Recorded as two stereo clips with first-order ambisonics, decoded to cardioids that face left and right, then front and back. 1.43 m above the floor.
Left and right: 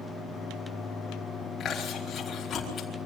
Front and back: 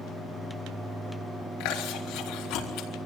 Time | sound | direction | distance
1.6 | chewing | 25° left | 4.5 m